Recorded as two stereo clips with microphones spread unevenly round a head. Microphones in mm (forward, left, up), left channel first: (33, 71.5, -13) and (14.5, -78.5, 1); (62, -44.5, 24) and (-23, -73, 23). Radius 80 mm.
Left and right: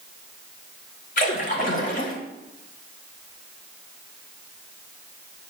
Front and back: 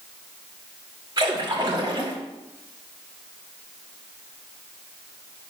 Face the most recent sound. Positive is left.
turn(degrees=130)